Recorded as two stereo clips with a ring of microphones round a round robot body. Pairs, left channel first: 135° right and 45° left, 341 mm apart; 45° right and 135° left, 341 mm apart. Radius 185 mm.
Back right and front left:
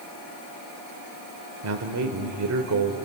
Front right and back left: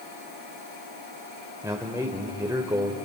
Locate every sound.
1.6 s a man speaking: 55° left, 1.5 m